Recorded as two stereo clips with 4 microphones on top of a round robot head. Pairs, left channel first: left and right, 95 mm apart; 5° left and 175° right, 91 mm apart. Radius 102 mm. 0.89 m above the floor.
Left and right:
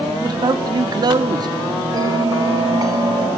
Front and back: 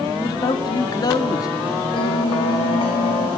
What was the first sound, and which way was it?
A man speaking, 45° right.